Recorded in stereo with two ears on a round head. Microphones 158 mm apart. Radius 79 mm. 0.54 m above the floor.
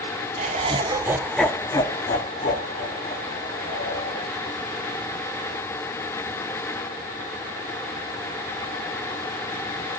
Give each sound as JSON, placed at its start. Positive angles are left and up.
{"t": 0.4, "sound": "laughter", "side_deg": -40, "distance_m": 1.2}